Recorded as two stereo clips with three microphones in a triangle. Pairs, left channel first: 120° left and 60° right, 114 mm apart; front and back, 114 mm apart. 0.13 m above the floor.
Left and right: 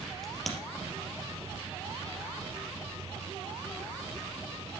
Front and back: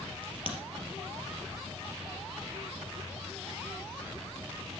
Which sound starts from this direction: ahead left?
A crack, at 0.2 s.